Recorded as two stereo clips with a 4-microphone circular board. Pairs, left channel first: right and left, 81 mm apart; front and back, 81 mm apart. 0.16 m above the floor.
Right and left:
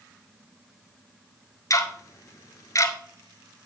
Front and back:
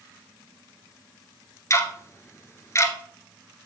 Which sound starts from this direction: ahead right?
Ticking, at 1.7 s.